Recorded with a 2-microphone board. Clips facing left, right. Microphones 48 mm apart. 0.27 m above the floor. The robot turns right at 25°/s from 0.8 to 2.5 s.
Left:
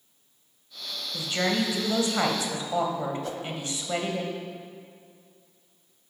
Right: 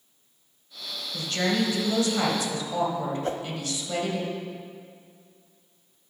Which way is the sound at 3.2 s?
40° right (ahead or behind).